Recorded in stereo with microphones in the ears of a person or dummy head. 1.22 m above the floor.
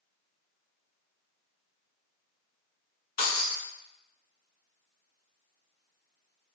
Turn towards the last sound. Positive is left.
turn(degrees=35)  # may be behind; listen again after turning